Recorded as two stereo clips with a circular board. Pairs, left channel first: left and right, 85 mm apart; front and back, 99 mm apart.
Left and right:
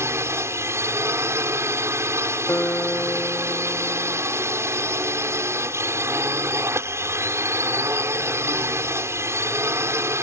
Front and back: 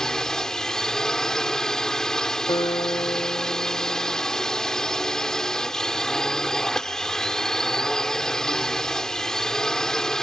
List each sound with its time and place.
0.0 s a drone: 80° right
2.5 s a guitar: 30° left